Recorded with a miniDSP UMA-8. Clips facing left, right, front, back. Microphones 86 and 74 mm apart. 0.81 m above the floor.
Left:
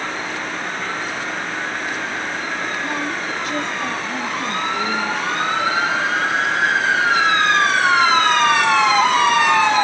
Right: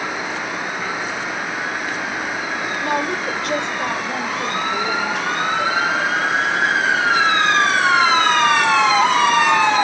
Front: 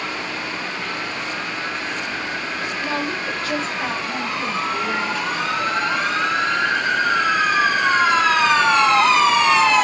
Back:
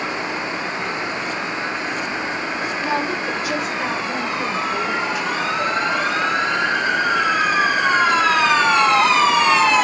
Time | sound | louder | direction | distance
2.8 | a woman speaking | right 3 dB, back 3 dB | 105° right | 2.5 m